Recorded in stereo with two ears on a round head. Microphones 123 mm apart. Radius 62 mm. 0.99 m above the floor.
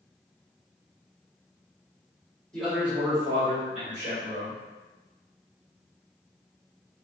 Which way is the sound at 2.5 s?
5° left (ahead or behind).